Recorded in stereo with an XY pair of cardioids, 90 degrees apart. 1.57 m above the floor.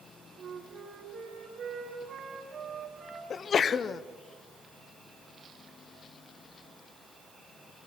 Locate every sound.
0.4 s a flute: 60° right, 4 m
3.3 s a sneeze: 55° left, 0.9 m